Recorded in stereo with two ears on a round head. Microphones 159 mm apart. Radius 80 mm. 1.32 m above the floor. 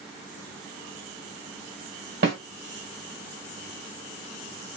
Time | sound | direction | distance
2.2 | a snare drum | 65° right (ahead or behind) | 1.6 m